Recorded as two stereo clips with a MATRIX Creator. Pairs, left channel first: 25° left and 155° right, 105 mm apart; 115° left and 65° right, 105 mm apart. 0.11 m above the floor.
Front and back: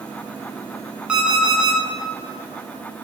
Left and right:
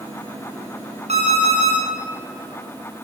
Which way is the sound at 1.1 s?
75° right.